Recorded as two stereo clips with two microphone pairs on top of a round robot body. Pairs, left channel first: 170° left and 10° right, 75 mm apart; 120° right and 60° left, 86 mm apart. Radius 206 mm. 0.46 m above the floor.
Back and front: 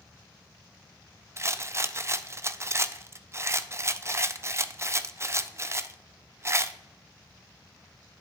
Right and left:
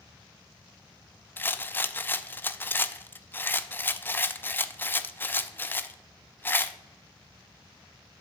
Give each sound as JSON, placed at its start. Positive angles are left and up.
{"t": 1.4, "sound": "a rattle", "azimuth_deg": -50, "distance_m": 0.5}